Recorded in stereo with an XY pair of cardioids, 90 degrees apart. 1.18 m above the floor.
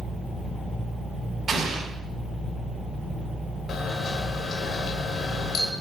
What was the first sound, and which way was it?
An explosion, 50° right.